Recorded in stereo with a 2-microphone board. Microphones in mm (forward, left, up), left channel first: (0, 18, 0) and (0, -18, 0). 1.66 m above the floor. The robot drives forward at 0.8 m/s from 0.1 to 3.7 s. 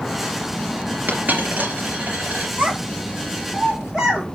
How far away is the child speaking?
About 3 m.